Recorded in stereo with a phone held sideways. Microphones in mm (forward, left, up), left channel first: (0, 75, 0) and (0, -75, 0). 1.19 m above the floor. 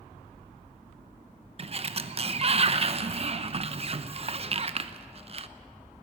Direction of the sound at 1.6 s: 40° right (ahead or behind).